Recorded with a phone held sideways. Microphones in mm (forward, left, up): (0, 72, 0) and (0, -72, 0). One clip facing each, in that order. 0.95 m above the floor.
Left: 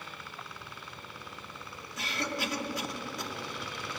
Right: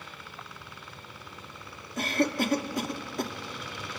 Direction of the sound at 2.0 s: 45° right (ahead or behind).